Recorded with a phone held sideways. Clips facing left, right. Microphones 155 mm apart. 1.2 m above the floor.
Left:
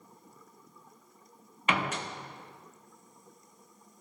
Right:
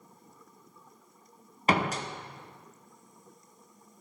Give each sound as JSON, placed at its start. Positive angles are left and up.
{"t": 1.7, "sound": "a door slam", "side_deg": -35, "distance_m": 0.5}